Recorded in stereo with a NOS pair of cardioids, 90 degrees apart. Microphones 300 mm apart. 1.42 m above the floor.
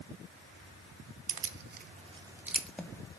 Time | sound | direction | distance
1.3 | keys jangling | 55° right | 0.8 m